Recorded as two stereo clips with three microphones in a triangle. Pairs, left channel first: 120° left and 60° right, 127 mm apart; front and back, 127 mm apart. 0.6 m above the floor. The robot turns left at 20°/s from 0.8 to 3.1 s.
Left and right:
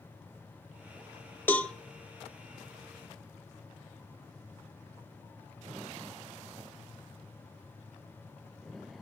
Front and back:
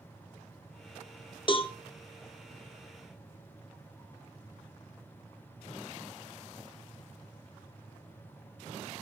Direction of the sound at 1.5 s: 45° left.